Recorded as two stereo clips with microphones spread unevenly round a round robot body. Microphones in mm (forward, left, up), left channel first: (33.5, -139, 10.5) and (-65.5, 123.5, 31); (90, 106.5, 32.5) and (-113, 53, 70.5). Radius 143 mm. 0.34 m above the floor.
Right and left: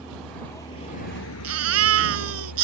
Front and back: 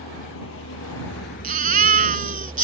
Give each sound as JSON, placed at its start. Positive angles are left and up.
{"t": 0.0, "sound": "a vehicle", "azimuth_deg": 25}
{"t": 1.4, "sound": "a baby crying", "azimuth_deg": 145}